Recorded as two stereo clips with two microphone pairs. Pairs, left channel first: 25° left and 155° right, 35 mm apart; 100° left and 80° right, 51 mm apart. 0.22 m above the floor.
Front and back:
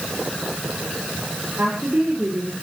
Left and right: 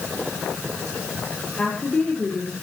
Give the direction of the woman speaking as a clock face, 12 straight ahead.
6 o'clock.